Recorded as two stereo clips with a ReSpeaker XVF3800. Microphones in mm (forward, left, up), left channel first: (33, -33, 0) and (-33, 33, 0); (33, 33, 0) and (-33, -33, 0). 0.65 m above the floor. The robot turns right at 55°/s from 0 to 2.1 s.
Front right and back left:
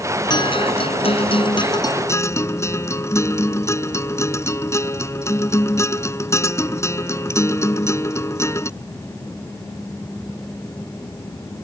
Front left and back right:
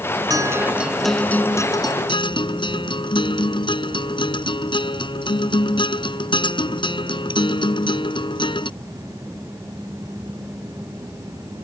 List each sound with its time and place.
0.3 s a guitar: 85° right; by 8.7 s 15° left